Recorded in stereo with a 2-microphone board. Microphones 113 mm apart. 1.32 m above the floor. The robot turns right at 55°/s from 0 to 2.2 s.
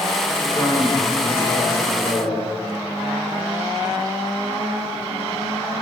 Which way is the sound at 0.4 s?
20° left.